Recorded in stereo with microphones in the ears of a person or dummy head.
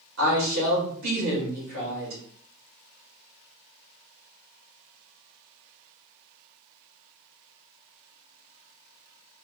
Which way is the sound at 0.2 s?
55° right (ahead or behind).